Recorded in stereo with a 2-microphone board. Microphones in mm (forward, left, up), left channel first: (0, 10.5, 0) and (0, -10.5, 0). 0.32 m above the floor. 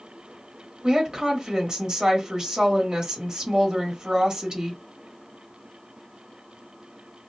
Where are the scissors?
I don't hear scissors.